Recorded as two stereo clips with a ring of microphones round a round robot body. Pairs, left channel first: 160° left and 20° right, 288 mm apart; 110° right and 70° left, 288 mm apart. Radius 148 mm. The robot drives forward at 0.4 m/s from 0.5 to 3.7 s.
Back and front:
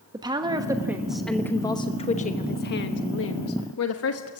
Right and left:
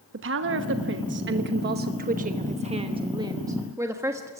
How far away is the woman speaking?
About 1.1 m.